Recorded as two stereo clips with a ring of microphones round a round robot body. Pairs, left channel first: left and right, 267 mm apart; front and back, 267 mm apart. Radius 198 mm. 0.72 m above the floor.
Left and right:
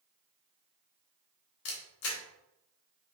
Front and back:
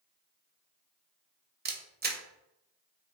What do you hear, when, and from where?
1.6 s a camera shutter: 125° left, 0.8 m